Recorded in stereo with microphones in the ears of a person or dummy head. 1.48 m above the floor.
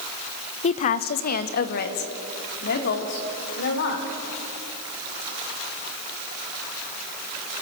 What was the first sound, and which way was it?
A woman speaking, 40° left (ahead or behind).